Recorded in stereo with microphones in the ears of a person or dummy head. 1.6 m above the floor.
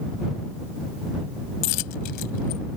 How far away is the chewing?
No chewing in this recording.